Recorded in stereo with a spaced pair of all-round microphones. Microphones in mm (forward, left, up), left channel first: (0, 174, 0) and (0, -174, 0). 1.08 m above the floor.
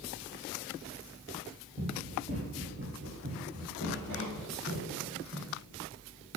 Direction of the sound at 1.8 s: 10° right (ahead or behind).